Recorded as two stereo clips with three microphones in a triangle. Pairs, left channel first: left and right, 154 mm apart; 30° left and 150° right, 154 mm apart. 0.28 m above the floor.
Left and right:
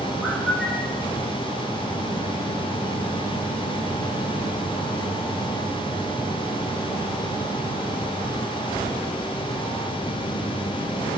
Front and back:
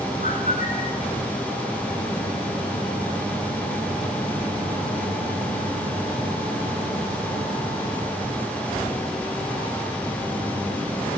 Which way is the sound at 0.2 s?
Straight ahead.